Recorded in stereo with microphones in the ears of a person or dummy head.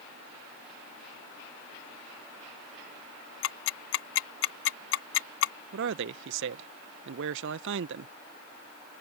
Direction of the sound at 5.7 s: 65° right (ahead or behind).